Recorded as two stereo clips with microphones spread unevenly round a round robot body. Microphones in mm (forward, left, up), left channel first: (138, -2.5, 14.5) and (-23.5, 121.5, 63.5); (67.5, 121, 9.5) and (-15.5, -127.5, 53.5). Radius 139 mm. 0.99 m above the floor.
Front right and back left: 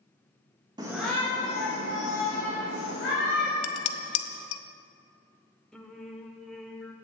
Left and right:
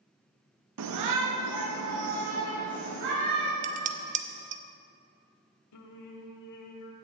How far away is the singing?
About 1.1 m.